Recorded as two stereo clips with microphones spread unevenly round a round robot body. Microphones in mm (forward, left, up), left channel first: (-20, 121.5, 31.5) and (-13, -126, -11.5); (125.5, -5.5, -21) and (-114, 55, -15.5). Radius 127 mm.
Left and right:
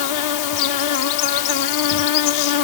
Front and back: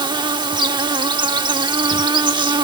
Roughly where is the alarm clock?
No alarm clock in this recording.